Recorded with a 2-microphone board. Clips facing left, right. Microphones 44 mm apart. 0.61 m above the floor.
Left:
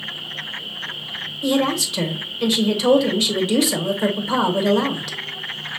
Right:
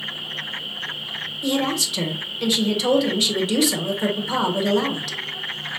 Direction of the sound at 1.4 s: Centre (ahead or behind).